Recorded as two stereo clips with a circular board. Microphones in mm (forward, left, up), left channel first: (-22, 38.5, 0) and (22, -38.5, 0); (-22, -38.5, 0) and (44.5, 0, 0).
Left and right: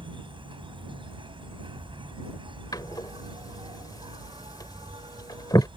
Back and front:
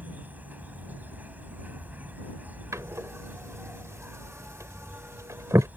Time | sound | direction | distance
0.0 | an insect | 40° right | ?
2.7 | a door slam | 80° left | ?